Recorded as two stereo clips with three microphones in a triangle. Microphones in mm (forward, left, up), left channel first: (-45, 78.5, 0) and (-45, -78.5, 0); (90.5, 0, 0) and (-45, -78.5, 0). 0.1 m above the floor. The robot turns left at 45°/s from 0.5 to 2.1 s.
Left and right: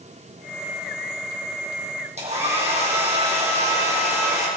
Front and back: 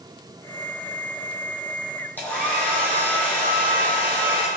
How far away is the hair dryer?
About 2.5 m.